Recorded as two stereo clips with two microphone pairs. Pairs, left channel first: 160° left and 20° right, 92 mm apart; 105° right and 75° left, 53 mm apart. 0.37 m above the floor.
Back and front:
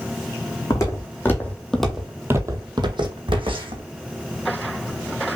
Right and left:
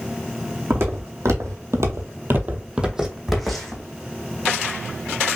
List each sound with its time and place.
0.7 s footsteps: 110° left, 1.6 m; by 3.8 s 20° right, 1.6 m